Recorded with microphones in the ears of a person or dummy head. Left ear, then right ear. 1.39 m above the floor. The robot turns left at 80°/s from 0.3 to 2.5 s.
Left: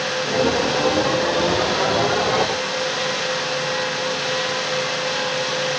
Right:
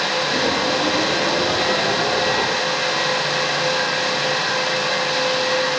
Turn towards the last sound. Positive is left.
No sound to turn to.